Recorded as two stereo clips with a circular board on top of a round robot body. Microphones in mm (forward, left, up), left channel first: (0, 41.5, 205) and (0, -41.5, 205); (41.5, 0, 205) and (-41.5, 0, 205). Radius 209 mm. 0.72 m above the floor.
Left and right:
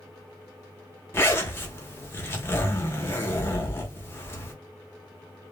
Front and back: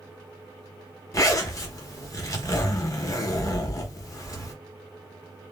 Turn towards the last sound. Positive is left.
turn(degrees=35)